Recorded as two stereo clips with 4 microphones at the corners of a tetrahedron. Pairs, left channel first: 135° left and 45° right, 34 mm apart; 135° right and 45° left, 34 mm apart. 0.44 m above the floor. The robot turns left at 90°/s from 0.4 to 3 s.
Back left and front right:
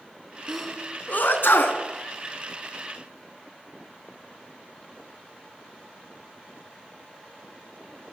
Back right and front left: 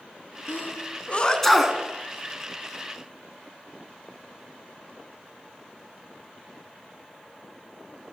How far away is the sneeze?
About 4.5 m.